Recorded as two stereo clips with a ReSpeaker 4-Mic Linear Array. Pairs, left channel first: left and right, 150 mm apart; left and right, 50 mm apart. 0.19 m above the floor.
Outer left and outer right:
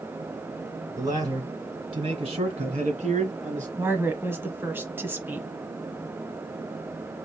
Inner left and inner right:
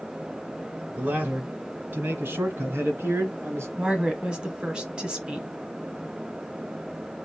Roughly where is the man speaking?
Right.